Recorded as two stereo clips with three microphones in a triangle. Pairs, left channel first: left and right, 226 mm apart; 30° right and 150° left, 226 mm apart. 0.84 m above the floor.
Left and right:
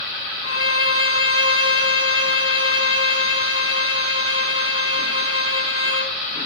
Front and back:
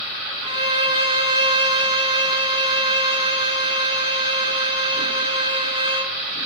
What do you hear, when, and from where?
0.4 s a violin: 85° left, 2.0 m